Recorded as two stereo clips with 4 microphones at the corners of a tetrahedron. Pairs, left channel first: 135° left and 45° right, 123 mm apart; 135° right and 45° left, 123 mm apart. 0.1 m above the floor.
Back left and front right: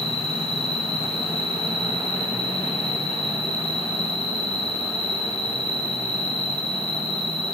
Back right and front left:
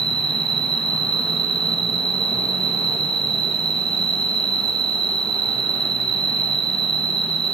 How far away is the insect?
About 1.3 m.